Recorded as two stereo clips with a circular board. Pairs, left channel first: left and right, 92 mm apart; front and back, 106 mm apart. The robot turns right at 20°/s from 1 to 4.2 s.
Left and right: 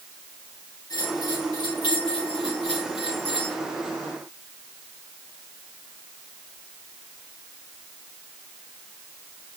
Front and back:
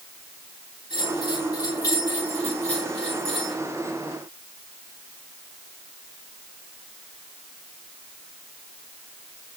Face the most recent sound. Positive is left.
turn(degrees=105)